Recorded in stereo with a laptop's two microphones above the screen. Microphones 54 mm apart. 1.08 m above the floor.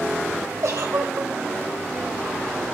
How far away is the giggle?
About 3 m.